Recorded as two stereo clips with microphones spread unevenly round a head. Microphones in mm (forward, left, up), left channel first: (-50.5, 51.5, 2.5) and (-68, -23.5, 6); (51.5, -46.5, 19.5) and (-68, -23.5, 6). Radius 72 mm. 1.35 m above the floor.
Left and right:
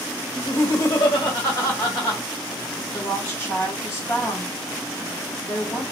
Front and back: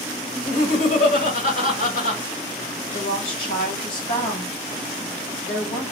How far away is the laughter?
About 1.5 m.